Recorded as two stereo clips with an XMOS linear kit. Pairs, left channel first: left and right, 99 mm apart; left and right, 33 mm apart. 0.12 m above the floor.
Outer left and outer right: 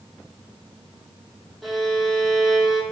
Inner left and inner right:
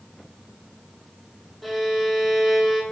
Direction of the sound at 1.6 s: Centre (ahead or behind).